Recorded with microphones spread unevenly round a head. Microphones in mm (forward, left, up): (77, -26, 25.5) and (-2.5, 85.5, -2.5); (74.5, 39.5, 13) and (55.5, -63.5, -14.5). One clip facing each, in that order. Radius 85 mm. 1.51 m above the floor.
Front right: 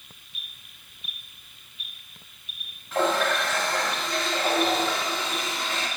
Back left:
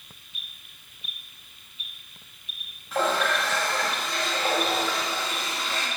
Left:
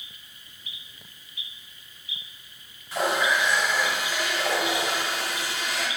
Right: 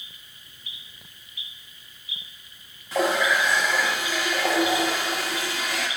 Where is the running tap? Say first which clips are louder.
Front right 1 dB, right 2 dB; 145° right, 1.8 m.